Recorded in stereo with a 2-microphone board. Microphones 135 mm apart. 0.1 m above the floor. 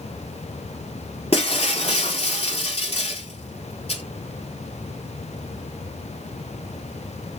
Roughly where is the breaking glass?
Left.